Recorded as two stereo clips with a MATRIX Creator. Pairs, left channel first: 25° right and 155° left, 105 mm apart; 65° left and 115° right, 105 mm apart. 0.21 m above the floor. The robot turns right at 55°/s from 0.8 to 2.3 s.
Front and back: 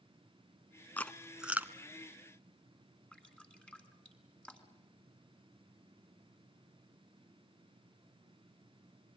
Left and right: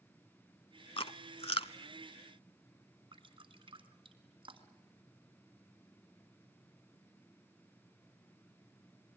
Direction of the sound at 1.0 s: 50° left.